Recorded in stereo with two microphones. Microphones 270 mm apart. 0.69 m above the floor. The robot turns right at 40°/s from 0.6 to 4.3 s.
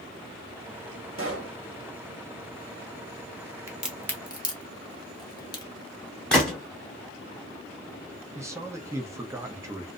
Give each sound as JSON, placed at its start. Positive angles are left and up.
{"t": 1.2, "sound": "a pop", "side_deg": -50, "distance_m": 0.8}
{"t": 3.7, "sound": "a crack", "side_deg": -10, "distance_m": 0.7}
{"t": 6.3, "sound": "a gunshot", "side_deg": 5, "distance_m": 0.9}
{"t": 8.3, "sound": "a man speaking", "side_deg": -10, "distance_m": 0.6}